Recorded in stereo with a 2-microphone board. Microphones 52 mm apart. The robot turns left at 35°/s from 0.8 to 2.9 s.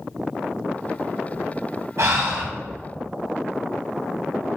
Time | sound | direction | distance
2.0 | breathing | 75° right (ahead or behind) | 1.3 m